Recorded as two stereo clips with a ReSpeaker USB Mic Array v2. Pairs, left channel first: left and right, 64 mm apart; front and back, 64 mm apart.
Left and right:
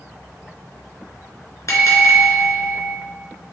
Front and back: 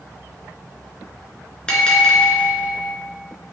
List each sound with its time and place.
1.7 s a bell: 75° left, 3 m